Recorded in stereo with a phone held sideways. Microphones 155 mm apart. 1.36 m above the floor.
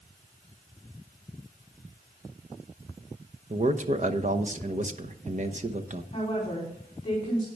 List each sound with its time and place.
3.5 s a man speaking: 45° right (ahead or behind), 1.0 m
6.1 s a woman speaking: 30° left (ahead or behind), 4 m